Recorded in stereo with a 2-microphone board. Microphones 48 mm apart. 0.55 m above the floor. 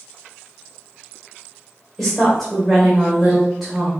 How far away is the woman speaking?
About 1.7 m.